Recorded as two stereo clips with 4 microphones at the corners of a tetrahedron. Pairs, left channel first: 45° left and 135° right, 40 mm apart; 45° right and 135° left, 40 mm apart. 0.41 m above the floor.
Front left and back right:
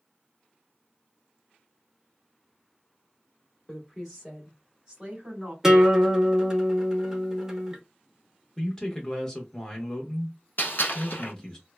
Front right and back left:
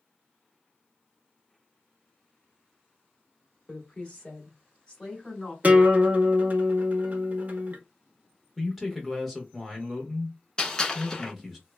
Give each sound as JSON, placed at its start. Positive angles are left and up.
{"t": 3.7, "sound": "a woman speaking", "azimuth_deg": -10, "distance_m": 1.4}
{"t": 5.6, "sound": "a guitar", "azimuth_deg": 155, "distance_m": 0.7}
{"t": 8.6, "sound": "a man speaking", "azimuth_deg": 55, "distance_m": 0.8}
{"t": 10.6, "sound": "a gunshot", "azimuth_deg": 25, "distance_m": 0.8}